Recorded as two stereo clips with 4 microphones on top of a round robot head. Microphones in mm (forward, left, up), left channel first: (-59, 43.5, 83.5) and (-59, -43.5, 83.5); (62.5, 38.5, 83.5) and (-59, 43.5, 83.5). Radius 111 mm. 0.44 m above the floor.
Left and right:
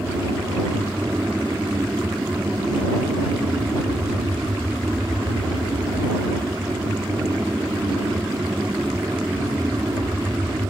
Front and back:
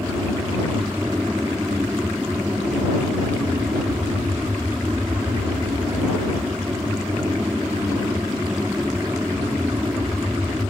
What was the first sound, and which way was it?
An aircraft, 135° right.